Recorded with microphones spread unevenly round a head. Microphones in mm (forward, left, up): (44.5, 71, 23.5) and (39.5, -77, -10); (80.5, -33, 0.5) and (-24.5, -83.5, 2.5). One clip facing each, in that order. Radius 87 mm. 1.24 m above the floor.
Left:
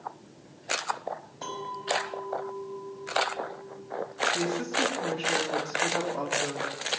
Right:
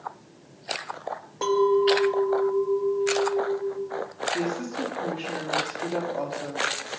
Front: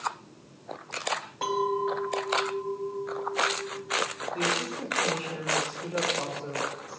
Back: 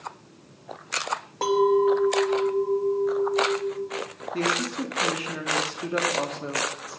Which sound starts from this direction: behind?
A woman speaking, at 4.3 s.